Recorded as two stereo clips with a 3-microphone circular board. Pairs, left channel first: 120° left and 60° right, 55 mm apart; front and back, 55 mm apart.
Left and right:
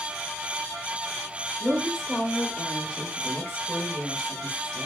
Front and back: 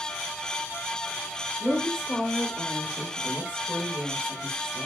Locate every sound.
1.6 s a woman speaking: 50° left, 1.2 m; by 4.9 s straight behind, 1.3 m